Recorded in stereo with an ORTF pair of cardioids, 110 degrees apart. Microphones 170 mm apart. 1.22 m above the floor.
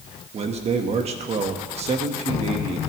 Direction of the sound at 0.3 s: 40° right.